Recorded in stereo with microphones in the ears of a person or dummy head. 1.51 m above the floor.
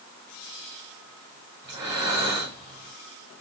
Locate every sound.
1.6 s breathing: 20° right (ahead or behind), 1.0 m